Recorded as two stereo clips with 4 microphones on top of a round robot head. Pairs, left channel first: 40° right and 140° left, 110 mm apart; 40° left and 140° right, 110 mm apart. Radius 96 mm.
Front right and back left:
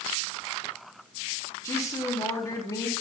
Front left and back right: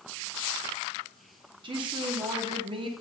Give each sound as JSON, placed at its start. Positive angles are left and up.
{"t": 1.6, "sound": "a woman speaking", "azimuth_deg": -100, "distance_m": 0.8}